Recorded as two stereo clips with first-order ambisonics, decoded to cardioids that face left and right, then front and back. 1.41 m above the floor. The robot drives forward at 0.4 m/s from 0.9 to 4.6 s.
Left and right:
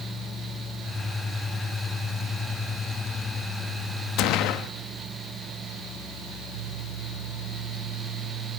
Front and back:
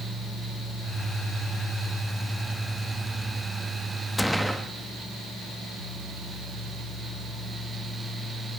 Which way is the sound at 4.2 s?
85° left.